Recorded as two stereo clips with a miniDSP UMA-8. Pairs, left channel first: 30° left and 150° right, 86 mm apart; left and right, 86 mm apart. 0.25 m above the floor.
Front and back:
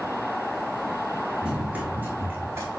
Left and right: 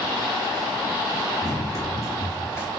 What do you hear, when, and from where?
1.4 s running footsteps: 130° left, 2.5 m; by 2.7 s 155° left, 2 m